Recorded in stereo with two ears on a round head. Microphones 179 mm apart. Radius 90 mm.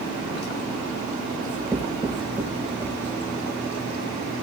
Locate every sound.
1.4 s writing: 10° left (ahead or behind), 5.5 m